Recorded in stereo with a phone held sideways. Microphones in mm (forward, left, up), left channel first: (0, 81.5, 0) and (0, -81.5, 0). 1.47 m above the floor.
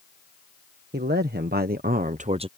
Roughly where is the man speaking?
Right.